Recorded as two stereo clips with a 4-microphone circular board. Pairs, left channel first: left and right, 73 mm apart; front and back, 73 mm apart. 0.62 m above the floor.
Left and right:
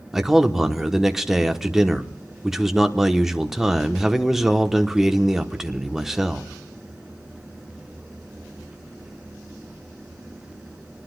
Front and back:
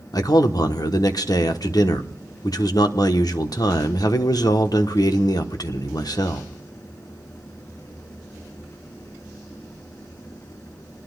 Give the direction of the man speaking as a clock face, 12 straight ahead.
12 o'clock.